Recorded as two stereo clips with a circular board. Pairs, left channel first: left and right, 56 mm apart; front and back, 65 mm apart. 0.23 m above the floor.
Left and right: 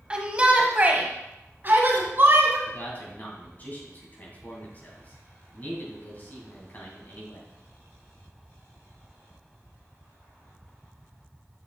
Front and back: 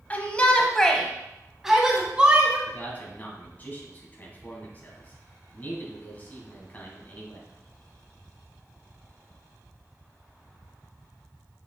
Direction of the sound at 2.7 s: 50° left.